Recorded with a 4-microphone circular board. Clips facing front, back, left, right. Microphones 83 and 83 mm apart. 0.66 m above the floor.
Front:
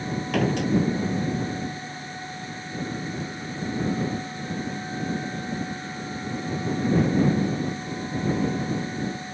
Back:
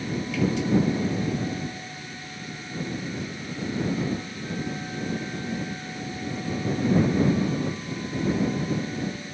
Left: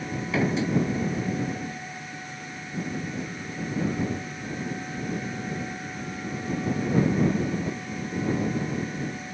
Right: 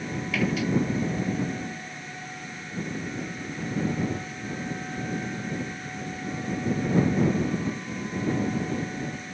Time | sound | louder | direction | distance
0.3 | a door slam | front 2 dB, left 2 dB | 30° left | ?